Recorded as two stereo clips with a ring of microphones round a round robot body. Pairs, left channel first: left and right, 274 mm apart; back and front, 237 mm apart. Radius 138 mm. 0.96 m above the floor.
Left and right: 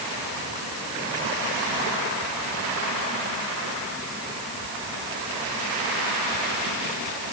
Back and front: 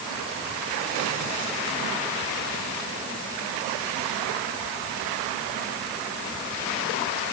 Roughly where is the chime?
No chime in this recording.